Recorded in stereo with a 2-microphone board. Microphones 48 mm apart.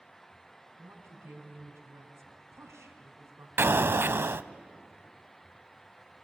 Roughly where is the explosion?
Right.